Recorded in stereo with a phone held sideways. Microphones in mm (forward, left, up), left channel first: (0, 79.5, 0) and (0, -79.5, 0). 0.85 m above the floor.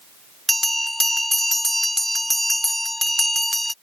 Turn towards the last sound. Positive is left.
turn(degrees=0)  # may be behind; listen again after turning